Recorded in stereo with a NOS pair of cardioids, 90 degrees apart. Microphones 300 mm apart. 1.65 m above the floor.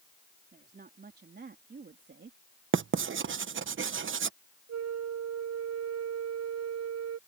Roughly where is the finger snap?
I don't hear a finger snap.